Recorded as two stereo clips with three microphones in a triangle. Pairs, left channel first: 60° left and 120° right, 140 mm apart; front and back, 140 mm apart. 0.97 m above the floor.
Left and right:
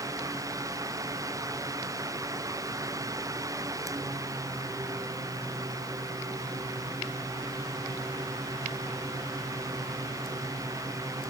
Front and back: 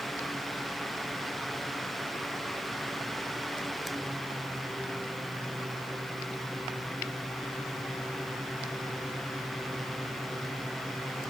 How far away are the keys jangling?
No keys jangling in this recording.